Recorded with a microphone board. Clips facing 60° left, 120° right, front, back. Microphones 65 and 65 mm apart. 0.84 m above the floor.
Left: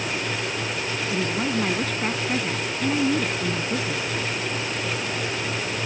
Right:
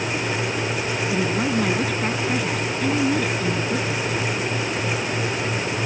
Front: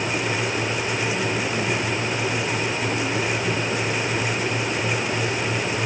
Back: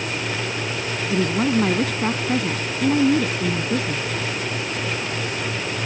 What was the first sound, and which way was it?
A woman speaking, 155° left.